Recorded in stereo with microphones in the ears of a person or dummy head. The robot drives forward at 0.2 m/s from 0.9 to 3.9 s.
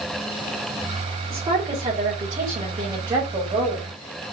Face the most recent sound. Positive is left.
turn(degrees=-20)  # may be behind; listen again after turning